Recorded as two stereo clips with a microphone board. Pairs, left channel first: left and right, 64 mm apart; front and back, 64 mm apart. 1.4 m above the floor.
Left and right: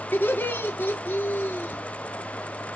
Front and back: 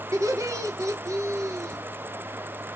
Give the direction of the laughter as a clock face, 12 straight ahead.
7 o'clock.